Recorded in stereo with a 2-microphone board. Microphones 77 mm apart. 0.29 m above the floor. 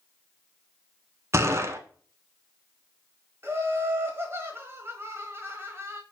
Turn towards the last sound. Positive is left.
turn(degrees=-35)  # may be behind; listen again after turning